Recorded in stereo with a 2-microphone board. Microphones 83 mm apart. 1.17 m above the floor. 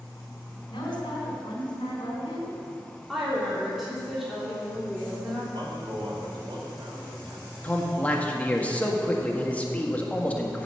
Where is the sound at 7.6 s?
15° left (ahead or behind), 1.5 m.